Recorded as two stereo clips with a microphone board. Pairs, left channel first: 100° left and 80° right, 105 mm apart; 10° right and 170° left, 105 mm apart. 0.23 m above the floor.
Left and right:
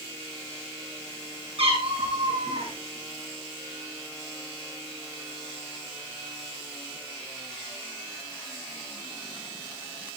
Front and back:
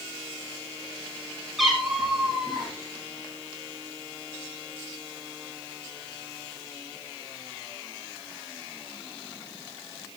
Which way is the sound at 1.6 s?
100° right.